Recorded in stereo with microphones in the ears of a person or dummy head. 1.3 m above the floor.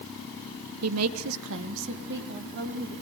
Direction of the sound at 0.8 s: 85° right.